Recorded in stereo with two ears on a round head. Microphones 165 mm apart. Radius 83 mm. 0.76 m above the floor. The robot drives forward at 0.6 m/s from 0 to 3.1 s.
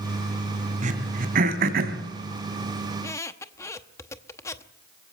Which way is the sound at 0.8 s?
40° right (ahead or behind).